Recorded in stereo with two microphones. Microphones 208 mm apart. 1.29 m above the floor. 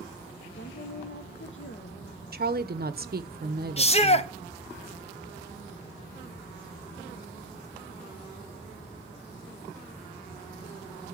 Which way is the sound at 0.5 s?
70° left (ahead or behind).